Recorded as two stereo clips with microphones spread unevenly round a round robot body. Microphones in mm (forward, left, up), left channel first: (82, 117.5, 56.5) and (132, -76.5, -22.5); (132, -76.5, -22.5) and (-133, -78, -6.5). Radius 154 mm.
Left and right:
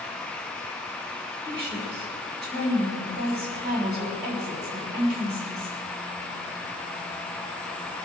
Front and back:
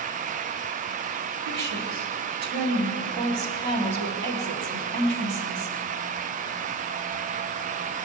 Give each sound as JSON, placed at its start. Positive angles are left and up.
{"t": 1.5, "sound": "a woman speaking", "azimuth_deg": -160, "distance_m": 3.0}